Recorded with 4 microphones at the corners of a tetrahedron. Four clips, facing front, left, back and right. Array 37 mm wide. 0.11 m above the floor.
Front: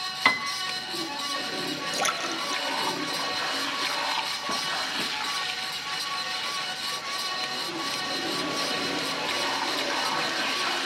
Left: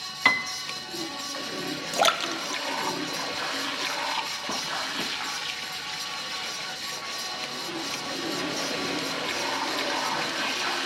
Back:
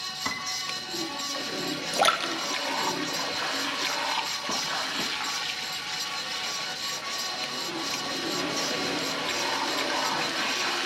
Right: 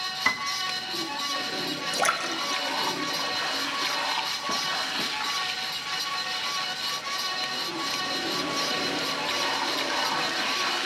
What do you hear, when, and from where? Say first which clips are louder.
0.2 s a piano: left 5 dB, front 10 dB; 40° left, 0.8 m
1.9 s a splash: left 3 dB, back 5 dB; 125° left, 1.6 m